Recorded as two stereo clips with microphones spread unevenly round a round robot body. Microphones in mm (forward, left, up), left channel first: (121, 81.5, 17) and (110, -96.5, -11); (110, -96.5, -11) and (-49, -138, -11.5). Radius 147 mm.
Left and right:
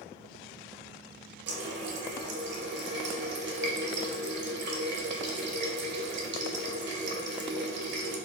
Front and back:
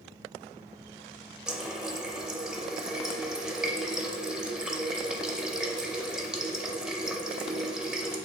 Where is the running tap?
80° right, 0.5 m.